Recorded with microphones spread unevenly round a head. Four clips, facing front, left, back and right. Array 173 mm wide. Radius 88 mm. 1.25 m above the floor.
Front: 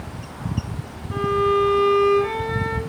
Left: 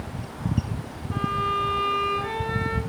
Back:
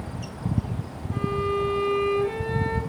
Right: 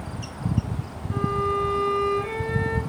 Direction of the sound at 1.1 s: 15° left.